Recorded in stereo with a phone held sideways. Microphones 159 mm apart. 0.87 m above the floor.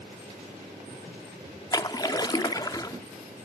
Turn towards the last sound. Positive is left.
turn(degrees=25)  # may be behind; listen again after turning